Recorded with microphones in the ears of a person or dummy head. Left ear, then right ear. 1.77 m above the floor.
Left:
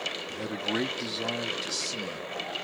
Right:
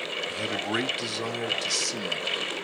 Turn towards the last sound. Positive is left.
turn(degrees=-60)  # may be behind; listen again after turning